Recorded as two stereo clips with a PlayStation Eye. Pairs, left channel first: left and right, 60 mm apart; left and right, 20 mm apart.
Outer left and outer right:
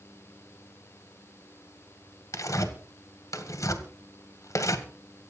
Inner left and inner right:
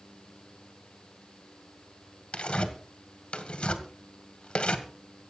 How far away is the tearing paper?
About 1.8 m.